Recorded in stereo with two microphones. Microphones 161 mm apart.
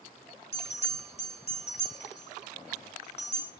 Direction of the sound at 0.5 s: 40° left (ahead or behind).